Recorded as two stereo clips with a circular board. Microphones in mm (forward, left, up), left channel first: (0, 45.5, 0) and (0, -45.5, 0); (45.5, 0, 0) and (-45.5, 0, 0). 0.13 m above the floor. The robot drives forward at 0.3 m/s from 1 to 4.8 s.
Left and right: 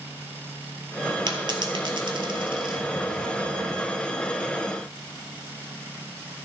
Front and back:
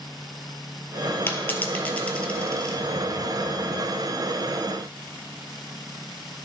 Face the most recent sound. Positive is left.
turn(degrees=-115)